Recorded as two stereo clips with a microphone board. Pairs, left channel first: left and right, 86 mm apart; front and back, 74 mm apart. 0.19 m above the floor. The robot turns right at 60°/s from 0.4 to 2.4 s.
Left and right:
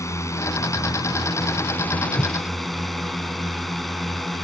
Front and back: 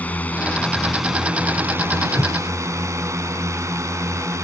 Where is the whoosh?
35° left; by 2.4 s 45° left.